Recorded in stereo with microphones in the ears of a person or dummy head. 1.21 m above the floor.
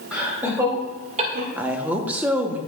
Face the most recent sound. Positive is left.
turn(degrees=-5)  # may be behind; listen again after turning